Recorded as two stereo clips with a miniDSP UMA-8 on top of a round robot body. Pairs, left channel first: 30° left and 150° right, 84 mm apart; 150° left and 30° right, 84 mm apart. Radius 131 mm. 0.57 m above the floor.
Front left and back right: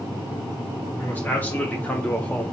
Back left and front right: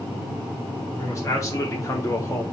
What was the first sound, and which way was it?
A man speaking, 100° left.